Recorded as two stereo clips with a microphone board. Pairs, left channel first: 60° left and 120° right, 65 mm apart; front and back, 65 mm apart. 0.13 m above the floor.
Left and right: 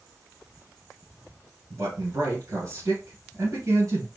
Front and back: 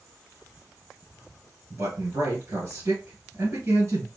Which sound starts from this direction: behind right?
A man speaking, at 1.7 s.